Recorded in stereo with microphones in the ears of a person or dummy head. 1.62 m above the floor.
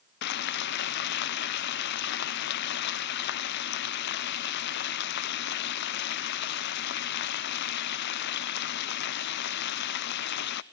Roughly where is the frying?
Left.